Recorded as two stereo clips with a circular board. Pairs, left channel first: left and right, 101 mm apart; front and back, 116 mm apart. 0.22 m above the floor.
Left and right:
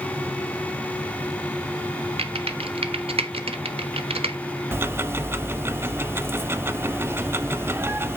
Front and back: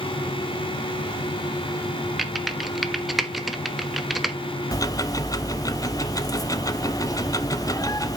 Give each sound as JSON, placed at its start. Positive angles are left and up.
{"t": 2.2, "sound": "typing on a keyboard", "azimuth_deg": -90, "distance_m": 0.8}
{"t": 4.7, "sound": "ticking", "azimuth_deg": -35, "distance_m": 0.5}